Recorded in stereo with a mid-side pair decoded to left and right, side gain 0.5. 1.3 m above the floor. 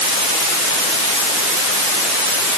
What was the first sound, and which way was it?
Only background noise.